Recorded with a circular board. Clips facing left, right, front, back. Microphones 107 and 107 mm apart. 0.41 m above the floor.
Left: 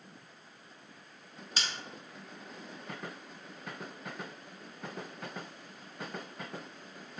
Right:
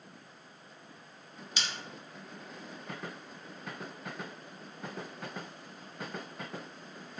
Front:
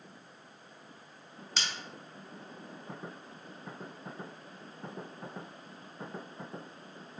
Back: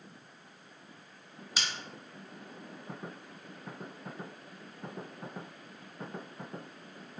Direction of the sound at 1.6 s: 100° left.